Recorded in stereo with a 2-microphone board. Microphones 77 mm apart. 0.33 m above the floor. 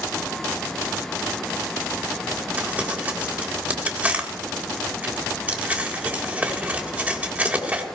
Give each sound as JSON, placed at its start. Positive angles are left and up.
{"t": 2.6, "sound": "crumpling", "side_deg": -20, "distance_m": 1.7}